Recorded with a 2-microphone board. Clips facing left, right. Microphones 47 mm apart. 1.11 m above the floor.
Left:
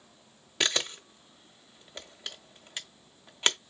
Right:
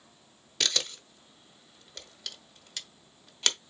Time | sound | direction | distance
0.6 | a camera shutter | 25° left (ahead or behind) | 0.8 m